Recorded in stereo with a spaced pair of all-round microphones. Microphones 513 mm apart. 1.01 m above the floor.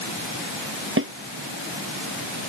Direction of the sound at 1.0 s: 25° right (ahead or behind).